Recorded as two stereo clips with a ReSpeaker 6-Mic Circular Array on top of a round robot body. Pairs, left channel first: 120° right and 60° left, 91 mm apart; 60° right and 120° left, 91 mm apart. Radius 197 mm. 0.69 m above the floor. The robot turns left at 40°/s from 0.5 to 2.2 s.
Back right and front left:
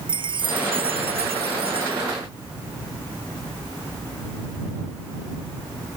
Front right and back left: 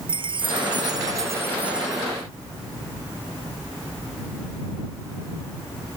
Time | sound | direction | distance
0.1 | a chime | 90° left | ?